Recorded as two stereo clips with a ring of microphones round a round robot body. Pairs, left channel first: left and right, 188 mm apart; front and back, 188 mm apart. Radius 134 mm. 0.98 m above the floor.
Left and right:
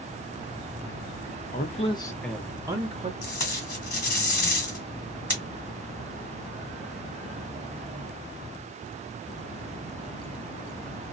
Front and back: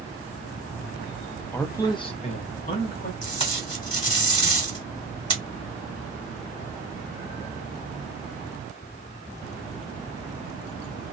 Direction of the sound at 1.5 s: 75° left.